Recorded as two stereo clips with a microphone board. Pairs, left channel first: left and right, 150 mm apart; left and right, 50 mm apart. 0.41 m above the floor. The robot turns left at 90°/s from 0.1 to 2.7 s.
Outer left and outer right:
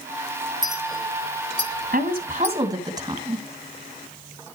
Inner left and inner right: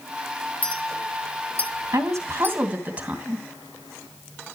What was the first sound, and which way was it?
A clink, 30° left (ahead or behind).